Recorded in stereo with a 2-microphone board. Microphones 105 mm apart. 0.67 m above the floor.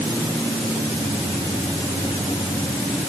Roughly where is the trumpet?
No trumpet in this recording.